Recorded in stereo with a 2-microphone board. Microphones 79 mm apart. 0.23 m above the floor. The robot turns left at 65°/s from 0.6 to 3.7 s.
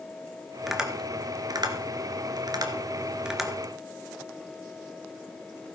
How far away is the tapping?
About 1.6 m.